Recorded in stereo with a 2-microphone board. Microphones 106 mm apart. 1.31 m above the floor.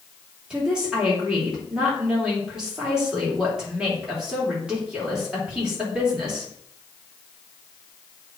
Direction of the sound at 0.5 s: 10° right (ahead or behind).